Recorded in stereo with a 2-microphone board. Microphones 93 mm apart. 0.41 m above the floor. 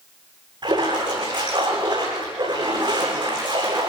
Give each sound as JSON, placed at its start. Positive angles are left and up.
{"t": 0.6, "sound": "a splash", "side_deg": -50, "distance_m": 9.0}